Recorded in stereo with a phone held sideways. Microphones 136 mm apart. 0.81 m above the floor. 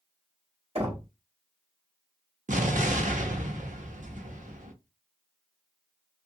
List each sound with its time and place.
0.8 s knocking: 45° right (ahead or behind), 1.6 m
2.5 s an explosion: 70° right (ahead or behind), 0.7 m